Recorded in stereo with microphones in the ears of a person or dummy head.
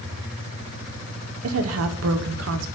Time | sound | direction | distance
1.4 | a woman speaking | 85° right | 0.8 m